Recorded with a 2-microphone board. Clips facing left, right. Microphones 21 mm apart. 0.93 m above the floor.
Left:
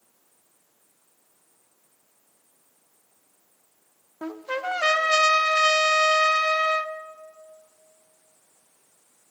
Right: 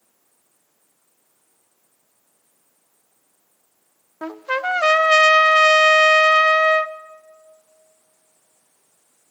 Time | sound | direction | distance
4.2 | a trumpet | 30° right (ahead or behind) | 0.6 m